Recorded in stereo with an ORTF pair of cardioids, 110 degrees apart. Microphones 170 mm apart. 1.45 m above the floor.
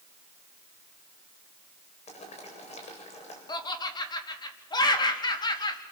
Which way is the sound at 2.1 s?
40° left.